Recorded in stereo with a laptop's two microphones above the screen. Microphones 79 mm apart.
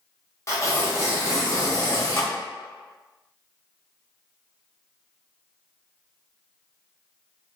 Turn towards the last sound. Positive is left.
turn(degrees=35)  # may be behind; listen again after turning